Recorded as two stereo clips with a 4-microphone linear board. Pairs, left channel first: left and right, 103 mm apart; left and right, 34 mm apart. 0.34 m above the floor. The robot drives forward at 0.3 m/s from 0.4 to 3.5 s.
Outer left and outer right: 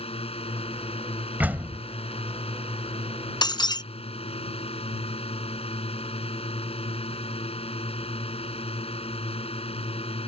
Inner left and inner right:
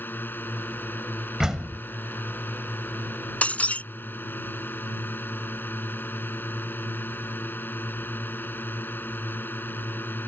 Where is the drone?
70° left (ahead or behind).